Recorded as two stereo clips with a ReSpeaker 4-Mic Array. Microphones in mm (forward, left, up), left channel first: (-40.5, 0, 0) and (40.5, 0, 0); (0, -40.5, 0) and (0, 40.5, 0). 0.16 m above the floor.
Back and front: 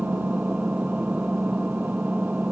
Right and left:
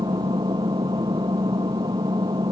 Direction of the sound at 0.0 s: 75° left.